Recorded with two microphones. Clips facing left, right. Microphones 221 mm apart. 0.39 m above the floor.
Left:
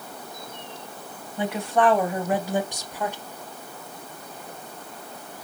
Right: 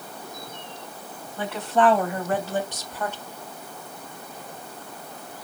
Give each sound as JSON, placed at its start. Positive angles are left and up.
{"t": 1.4, "sound": "a woman speaking", "side_deg": 10, "distance_m": 3.5}